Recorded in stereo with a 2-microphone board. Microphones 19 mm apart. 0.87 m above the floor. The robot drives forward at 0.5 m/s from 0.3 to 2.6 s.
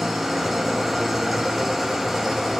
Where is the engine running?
5° right (ahead or behind), 8 m.